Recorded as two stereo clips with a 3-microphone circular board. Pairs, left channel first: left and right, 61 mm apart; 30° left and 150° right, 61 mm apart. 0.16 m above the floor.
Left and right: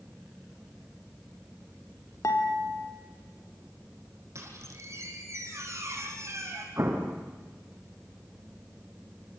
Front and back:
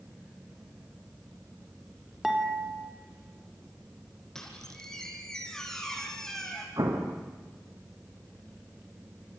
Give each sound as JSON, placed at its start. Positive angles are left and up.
{"t": 2.2, "sound": "dishes clattering", "azimuth_deg": 125, "distance_m": 3.5}
{"t": 4.3, "sound": "a squeak", "azimuth_deg": -50, "distance_m": 4.5}
{"t": 6.8, "sound": "an explosion", "azimuth_deg": -135, "distance_m": 4.0}